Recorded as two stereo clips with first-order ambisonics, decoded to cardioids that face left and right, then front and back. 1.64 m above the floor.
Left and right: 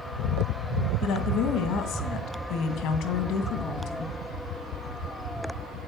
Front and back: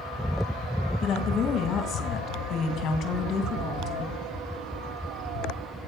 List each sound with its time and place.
1.0 s a woman speaking: 50° left, 1.8 m